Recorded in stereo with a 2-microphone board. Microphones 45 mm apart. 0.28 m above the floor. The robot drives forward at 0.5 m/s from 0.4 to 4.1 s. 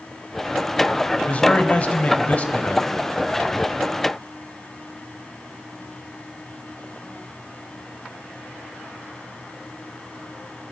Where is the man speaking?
30° left (ahead or behind), 1.2 m.